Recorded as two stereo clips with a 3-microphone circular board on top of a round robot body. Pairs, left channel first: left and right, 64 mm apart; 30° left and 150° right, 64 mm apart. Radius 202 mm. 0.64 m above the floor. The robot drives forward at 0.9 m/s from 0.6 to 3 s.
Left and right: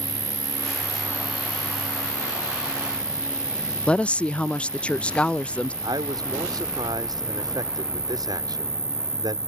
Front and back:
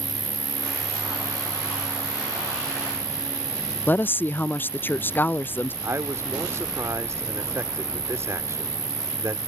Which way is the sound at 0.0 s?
120° right.